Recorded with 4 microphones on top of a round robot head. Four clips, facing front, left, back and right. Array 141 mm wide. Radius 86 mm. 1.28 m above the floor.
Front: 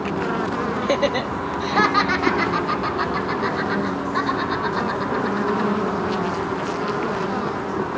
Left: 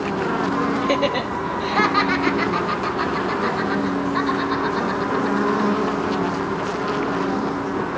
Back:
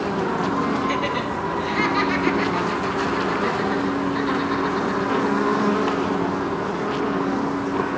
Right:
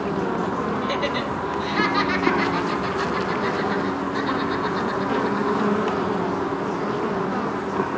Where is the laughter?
35° left, 1.1 m; by 5.7 s 40° left, 4 m.